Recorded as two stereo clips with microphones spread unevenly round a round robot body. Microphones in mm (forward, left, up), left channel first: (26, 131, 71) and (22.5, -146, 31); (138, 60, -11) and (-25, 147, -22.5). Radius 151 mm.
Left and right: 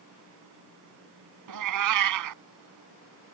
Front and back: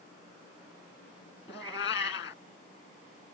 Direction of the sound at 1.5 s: 85° right.